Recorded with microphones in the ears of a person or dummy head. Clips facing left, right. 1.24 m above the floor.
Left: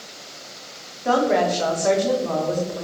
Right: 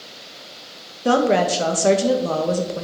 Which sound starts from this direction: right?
A woman speaking, at 1.1 s.